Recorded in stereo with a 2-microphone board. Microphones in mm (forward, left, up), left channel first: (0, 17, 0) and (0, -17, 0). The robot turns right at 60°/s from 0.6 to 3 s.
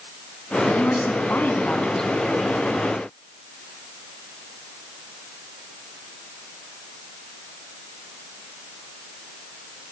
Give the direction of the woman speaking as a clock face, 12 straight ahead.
9 o'clock.